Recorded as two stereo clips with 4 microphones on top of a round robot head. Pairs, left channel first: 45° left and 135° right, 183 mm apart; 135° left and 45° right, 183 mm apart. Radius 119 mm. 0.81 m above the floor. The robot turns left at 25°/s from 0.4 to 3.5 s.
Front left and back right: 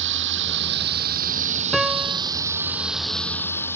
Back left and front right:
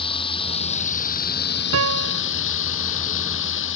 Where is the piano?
45° right; by 2.2 s 60° right.